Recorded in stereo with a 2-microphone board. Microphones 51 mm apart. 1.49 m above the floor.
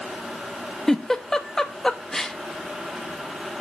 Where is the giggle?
10° left (ahead or behind), 1.0 m.